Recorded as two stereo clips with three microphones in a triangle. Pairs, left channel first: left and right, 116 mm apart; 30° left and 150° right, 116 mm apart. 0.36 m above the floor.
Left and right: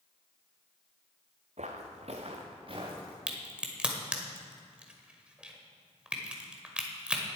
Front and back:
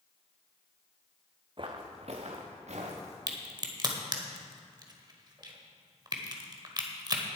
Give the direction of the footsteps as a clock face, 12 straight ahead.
4 o'clock.